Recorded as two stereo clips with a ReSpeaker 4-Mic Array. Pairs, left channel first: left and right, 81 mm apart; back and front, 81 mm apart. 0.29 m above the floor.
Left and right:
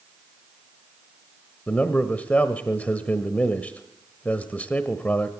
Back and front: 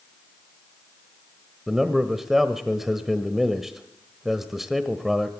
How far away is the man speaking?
About 1.0 m.